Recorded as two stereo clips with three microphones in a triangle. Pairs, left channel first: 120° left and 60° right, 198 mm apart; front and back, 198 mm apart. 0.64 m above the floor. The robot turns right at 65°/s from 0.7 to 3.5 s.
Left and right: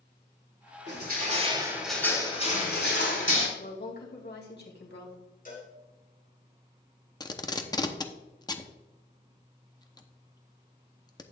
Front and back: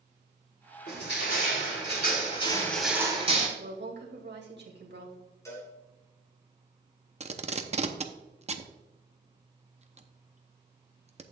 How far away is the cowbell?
About 3 m.